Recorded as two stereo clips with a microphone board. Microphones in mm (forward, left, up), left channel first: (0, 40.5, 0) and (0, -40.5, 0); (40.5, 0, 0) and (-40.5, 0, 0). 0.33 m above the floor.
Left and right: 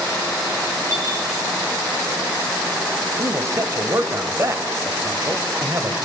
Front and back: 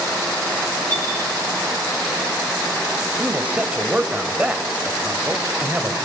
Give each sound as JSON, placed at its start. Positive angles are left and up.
{"t": 0.9, "sound": "a clink", "azimuth_deg": -135, "distance_m": 4.5}
{"t": 3.2, "sound": "a man speaking", "azimuth_deg": -115, "distance_m": 1.8}